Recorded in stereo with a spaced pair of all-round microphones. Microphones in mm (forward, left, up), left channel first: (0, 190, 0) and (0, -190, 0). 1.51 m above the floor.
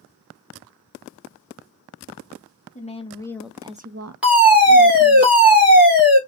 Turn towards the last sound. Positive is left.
turn(degrees=-5)  # may be behind; listen again after turning